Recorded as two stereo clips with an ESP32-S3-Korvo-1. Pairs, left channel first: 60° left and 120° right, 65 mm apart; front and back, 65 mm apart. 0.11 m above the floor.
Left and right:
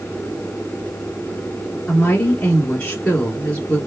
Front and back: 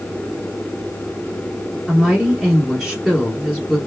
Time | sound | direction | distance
1.9 | a woman speaking | 90° left | 1.0 m